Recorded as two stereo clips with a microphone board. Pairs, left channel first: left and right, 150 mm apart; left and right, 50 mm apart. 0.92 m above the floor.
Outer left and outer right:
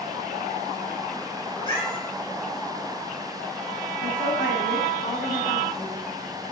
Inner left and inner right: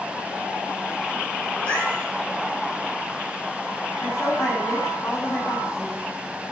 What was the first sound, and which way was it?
A cat meowing, 30° left (ahead or behind).